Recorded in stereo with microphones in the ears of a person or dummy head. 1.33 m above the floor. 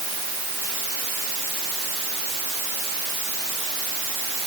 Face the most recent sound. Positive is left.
No sound to turn to.